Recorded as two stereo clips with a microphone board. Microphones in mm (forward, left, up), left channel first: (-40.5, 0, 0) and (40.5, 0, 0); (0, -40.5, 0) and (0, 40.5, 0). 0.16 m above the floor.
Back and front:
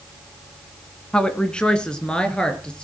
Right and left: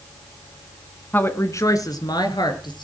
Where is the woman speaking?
115° right, 1.5 m; by 2.8 s 100° right, 3.5 m.